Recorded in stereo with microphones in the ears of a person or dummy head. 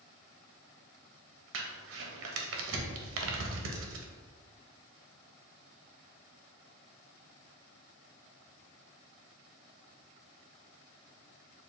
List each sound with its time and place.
1.5 s crumpling: 75° right (ahead or behind), 0.6 m